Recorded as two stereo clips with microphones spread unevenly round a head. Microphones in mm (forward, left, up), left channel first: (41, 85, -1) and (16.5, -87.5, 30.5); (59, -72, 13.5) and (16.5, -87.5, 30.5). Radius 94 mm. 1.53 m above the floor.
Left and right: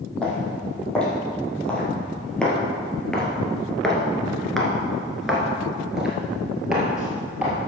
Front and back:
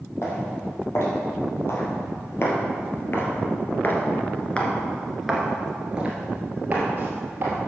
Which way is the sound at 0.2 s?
5° right.